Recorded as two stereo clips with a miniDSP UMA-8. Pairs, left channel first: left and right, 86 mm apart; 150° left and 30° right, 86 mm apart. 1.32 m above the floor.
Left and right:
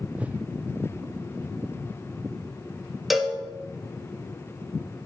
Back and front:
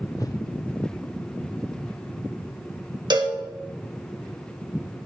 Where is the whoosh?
165° right, 0.6 m.